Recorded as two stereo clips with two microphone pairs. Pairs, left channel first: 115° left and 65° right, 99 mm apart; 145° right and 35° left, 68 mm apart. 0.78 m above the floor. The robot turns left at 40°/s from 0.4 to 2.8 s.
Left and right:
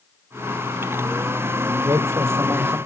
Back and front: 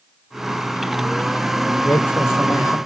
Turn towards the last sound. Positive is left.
turn(degrees=-140)